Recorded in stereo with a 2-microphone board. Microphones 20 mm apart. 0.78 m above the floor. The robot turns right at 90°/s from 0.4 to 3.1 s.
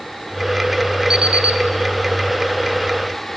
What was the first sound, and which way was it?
An alarm clock, 145° right.